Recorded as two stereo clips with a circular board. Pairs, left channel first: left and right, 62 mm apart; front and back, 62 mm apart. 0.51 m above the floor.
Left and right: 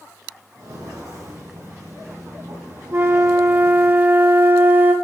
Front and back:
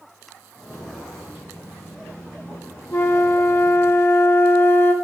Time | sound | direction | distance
0.6 | footsteps | 80° right | 4 m
2.9 | a flute | 40° right | 0.6 m